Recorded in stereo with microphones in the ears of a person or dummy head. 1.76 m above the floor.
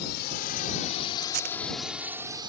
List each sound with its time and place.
0.0 s a drone: 60° left (ahead or behind); by 2.5 s 25° right (ahead or behind)
1.2 s tape being pulled: 45° right (ahead or behind)